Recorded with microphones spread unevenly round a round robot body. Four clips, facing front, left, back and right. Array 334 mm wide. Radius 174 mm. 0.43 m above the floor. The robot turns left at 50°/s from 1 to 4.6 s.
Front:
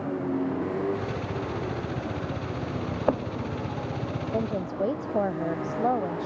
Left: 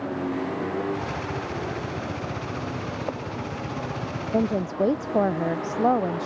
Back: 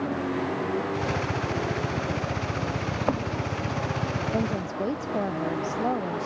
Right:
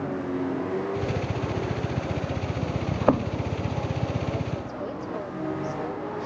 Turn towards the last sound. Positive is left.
turn(degrees=90)